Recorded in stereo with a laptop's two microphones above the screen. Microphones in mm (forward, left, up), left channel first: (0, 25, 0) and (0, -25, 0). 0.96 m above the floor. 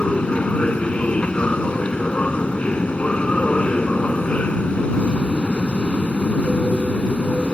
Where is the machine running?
25° left (ahead or behind).